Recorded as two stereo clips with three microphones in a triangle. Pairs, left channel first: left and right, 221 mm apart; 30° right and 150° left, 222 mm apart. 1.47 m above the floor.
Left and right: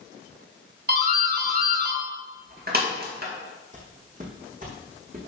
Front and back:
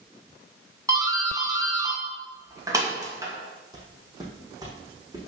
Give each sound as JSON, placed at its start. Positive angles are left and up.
{"t": 0.9, "sound": "a doorbell", "azimuth_deg": -135, "distance_m": 2.5}
{"t": 3.7, "sound": "footsteps", "azimuth_deg": -140, "distance_m": 3.0}